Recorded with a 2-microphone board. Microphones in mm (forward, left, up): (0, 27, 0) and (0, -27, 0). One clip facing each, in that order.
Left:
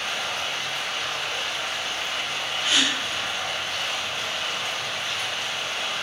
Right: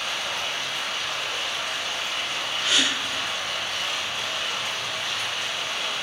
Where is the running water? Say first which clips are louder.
Even; 35° left (ahead or behind), 1.3 m.